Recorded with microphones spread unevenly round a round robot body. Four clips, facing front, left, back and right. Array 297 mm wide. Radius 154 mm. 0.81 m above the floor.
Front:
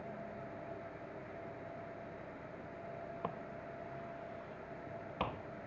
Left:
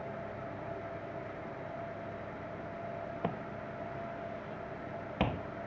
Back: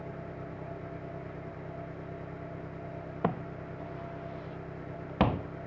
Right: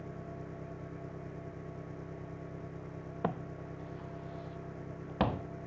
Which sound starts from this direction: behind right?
An engine running, at 0.0 s.